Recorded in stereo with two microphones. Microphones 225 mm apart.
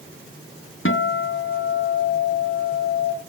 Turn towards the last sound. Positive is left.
turn(degrees=65)  # may be behind; listen again after turning